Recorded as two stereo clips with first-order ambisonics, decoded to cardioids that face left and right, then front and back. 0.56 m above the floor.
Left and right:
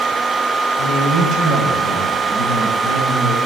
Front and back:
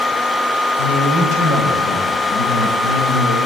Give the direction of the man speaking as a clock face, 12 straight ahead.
11 o'clock.